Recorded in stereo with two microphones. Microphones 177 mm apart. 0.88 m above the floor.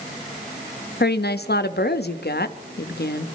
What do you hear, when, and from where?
1.0 s a woman speaking: 65° left (ahead or behind), 0.8 m